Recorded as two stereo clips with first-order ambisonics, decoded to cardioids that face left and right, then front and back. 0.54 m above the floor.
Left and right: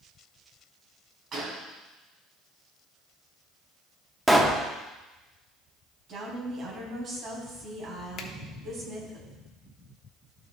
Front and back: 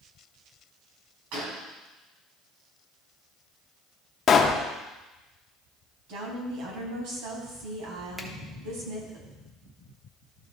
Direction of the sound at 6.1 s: 150° right.